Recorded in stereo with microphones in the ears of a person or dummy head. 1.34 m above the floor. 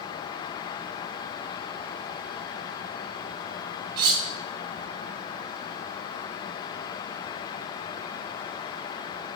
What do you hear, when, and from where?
4.0 s cutlery clinking: 25° right (ahead or behind), 0.5 m